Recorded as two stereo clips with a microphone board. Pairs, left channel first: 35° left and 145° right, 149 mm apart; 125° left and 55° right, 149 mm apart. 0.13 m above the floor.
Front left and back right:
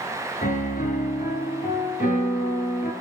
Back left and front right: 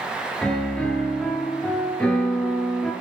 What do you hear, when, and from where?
0.4 s a piano: 40° left, 1.1 m